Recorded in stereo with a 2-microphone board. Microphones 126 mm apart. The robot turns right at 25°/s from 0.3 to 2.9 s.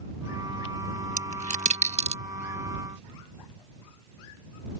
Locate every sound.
1.2 s a dropped coin: 80° right; by 2.2 s 60° right (ahead or behind)